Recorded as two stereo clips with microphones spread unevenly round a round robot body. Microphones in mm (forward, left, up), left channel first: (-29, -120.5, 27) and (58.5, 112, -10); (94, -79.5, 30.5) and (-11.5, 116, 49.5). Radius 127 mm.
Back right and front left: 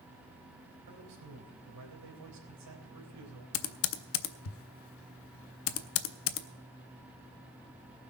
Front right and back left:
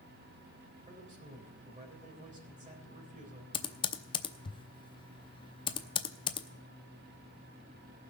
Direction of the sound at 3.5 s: 115° right.